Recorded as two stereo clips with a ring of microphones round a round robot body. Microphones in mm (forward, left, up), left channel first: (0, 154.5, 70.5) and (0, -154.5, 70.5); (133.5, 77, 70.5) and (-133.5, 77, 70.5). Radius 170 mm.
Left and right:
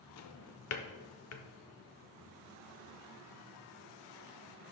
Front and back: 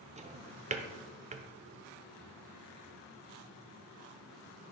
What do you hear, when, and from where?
0.2 s a drawer: 115° left, 0.7 m